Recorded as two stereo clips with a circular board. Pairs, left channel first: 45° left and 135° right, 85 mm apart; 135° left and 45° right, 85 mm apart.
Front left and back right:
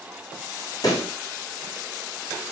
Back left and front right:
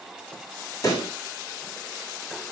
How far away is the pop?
About 8 m.